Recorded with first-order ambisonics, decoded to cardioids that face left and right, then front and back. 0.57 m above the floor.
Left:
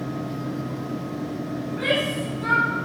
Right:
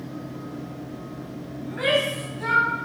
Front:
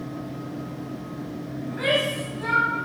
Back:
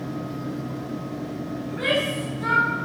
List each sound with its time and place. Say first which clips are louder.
1.6 s a shout: right 2 dB, front 1 dB; 60° right, 4 m; by 2.7 s 70° right, 3.5 m